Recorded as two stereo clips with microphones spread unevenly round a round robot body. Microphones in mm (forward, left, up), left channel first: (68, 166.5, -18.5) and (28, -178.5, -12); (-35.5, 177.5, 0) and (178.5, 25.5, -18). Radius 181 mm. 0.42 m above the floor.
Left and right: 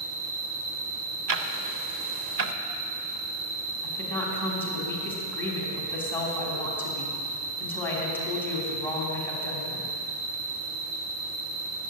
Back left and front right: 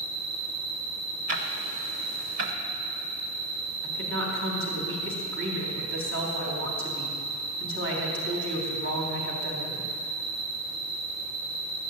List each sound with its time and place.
0.0 s an insect: 80° right, 1.2 m
1.3 s ticking: 65° right, 0.7 m
3.8 s a woman speaking: straight ahead, 3.5 m